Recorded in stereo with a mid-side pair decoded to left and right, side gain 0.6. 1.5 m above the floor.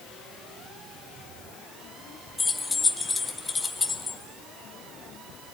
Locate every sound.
2.4 s keys jangling: 20° left, 1.9 m